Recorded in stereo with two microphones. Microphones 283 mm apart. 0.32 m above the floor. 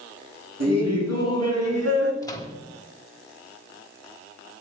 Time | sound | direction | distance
0.6 | laughter | 60° right (ahead or behind) | 3.5 m
2.2 | a microwave | 15° left (ahead or behind) | 1.0 m